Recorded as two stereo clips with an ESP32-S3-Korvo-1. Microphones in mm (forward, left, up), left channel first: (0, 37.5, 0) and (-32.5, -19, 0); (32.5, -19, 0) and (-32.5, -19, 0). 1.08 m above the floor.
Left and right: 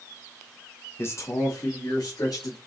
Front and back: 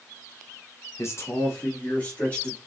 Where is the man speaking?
20° left, 0.9 m; by 2.6 s 65° left, 2.5 m.